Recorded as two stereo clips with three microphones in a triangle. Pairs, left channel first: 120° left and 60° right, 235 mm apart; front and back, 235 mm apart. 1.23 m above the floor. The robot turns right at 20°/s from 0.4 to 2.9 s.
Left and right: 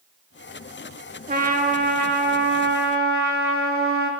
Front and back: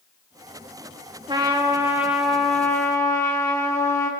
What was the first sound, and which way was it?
A trumpet, 110° right.